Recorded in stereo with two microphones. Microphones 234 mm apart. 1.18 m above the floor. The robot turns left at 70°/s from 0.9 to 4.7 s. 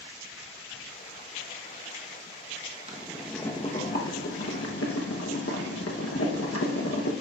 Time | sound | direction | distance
2.9 | boiling | 150° right | 1.0 m